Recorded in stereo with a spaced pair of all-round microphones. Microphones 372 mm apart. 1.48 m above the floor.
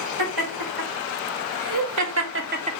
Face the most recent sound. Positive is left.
turn(degrees=-20)  # may be behind; listen again after turning